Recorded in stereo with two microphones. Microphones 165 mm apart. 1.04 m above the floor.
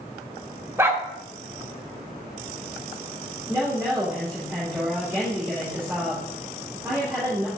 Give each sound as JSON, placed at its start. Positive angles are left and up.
{"t": 0.8, "sound": "a dog barking", "side_deg": -15, "distance_m": 1.1}
{"t": 3.5, "sound": "a woman speaking", "side_deg": -15, "distance_m": 3.0}